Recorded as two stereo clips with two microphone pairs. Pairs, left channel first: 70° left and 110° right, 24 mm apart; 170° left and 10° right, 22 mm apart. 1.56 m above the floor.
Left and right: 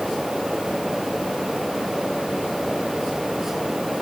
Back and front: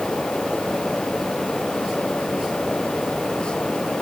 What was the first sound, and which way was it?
Only background noise.